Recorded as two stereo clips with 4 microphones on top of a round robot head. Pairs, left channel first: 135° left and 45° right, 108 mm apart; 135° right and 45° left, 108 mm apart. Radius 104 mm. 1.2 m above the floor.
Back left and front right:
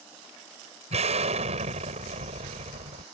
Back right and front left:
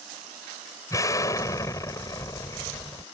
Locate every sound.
0.9 s an explosion: 70° right